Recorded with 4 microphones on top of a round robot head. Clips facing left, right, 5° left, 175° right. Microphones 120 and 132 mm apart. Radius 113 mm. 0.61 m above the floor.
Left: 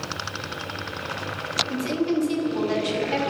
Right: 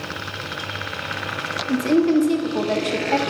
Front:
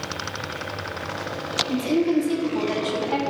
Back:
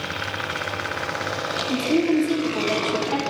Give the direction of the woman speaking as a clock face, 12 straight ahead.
3 o'clock.